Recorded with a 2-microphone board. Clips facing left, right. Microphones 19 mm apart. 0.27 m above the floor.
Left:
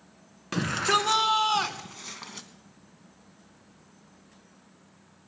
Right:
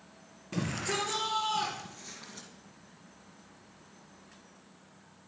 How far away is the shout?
About 2.5 m.